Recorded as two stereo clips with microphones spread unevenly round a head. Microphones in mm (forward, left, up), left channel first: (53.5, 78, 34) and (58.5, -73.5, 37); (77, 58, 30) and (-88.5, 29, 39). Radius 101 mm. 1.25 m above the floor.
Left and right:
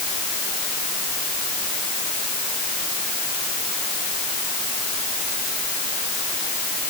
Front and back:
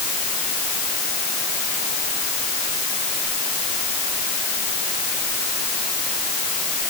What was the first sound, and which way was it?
Only background noise.